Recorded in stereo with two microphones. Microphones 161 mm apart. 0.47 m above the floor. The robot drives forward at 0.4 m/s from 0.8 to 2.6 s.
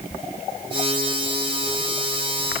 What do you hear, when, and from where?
Only background noise.